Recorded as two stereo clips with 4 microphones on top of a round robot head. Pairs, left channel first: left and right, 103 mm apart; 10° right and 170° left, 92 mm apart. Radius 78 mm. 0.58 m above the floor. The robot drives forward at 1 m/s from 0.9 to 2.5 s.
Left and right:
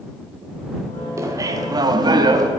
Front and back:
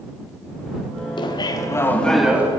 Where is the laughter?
30° right, 1.3 m; by 2.5 s 125° right, 0.9 m.